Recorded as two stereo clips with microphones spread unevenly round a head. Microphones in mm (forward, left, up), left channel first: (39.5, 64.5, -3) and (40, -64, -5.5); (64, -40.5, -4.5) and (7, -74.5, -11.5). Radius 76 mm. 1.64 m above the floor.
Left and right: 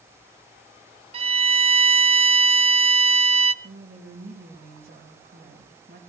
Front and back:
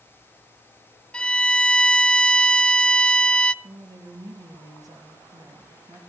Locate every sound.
1.1 s a violin: 45° right, 0.6 m
3.6 s a woman speaking: 125° right, 3 m